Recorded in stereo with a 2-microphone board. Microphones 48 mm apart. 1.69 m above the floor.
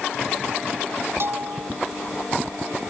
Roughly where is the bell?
Right.